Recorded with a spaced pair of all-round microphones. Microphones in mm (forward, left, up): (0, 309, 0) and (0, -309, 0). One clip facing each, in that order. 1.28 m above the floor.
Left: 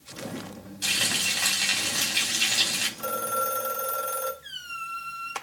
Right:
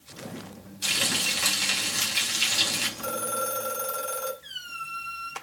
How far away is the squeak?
About 4.5 m.